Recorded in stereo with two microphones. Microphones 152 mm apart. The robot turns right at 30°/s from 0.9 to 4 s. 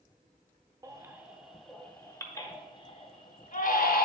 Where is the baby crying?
20° right (ahead or behind), 0.7 m; by 4.1 s 70° left (ahead or behind), 0.7 m.